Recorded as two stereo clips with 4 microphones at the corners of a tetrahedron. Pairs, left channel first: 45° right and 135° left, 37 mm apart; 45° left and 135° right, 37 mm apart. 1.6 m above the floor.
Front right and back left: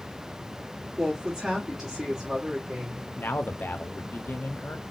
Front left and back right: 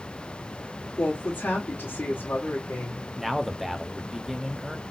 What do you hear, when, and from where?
1.0 s a woman speaking: 55° left, 1.5 m
3.2 s a man speaking: 45° right, 0.6 m